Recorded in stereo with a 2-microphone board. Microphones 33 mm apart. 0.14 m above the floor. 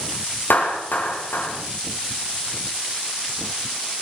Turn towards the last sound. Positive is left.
turn(degrees=80)